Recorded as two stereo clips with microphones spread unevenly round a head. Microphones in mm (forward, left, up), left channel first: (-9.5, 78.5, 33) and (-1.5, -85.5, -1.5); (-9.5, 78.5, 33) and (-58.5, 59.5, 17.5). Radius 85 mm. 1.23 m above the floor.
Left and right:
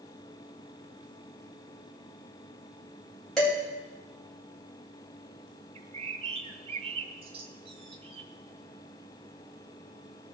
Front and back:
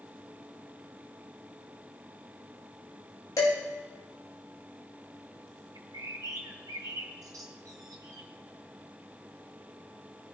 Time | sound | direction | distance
3.4 | dishes clattering | 5° left | 4.5 m
5.8 | a bird | 145° right | 1.5 m